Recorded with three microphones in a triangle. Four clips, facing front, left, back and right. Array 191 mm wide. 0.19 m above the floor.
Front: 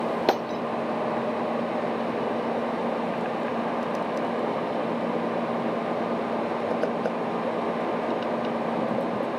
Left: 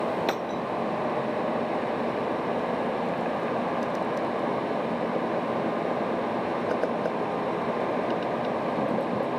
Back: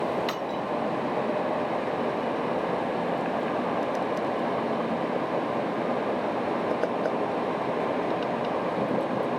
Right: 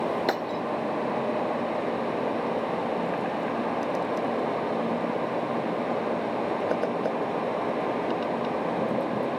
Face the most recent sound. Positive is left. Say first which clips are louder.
# right 1 dB, front 5 dB
turn(degrees=-5)